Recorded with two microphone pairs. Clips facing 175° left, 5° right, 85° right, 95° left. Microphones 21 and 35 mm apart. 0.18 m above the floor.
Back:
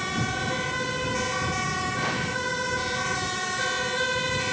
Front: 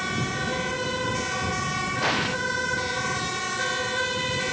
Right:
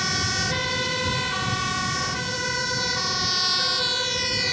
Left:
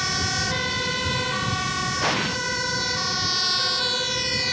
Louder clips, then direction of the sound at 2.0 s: Front 3 dB, left 4 dB; 55° left.